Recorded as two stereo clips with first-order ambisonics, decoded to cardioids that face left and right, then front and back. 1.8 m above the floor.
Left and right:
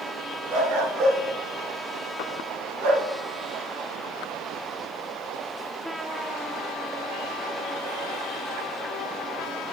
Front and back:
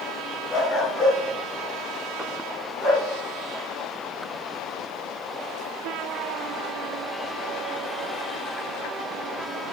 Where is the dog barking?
55° right, 6 m; by 3.1 s 65° right, 4 m.